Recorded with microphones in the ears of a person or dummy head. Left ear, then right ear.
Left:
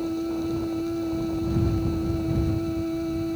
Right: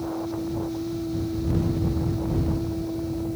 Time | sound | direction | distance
0.0 | a machine running | 70° left (ahead or behind) | ?